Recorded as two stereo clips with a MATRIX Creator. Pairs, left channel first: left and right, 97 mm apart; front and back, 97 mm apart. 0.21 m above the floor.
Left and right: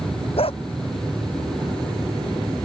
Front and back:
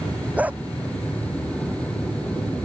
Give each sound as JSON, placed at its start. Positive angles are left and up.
{"t": 0.4, "sound": "a dog barking", "azimuth_deg": 105}